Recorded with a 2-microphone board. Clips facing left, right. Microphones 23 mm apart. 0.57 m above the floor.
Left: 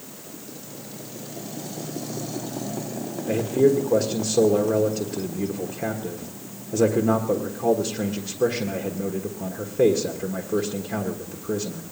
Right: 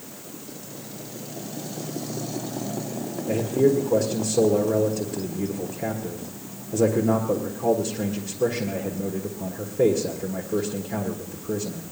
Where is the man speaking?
40° left (ahead or behind), 1.4 m.